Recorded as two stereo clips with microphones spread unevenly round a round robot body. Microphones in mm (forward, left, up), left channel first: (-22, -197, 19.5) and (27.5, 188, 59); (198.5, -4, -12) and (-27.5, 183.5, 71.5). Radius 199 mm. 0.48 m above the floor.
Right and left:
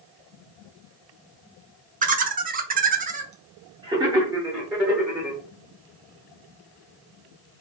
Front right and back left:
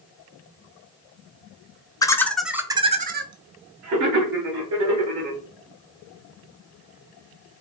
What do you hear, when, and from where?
2.0 s laughter: 15° left, 0.8 m; by 5.4 s 175° left, 1.4 m